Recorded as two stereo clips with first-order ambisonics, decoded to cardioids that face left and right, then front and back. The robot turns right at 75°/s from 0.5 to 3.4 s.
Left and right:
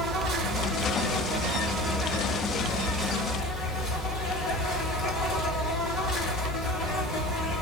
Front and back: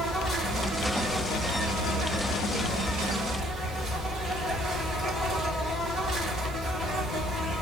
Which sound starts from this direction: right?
An insect, at 0.0 s.